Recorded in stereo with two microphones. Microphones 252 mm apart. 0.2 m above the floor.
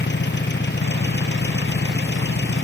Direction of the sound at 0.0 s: 45° left (ahead or behind).